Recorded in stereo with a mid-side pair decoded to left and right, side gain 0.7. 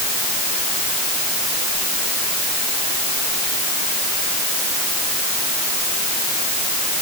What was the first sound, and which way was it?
Only background noise.